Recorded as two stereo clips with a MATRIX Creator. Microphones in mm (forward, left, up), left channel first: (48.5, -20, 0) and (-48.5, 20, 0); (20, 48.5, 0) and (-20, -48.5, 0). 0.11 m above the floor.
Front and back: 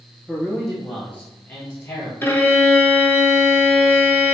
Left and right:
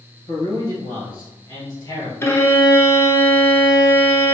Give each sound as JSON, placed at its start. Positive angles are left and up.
{"t": 0.3, "sound": "a man speaking", "azimuth_deg": 70, "distance_m": 1.7}
{"t": 2.2, "sound": "a violin", "azimuth_deg": 30, "distance_m": 0.6}